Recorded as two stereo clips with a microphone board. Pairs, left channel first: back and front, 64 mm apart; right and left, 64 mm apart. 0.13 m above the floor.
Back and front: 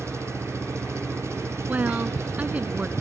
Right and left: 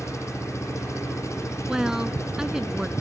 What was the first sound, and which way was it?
An engine running, 45° right.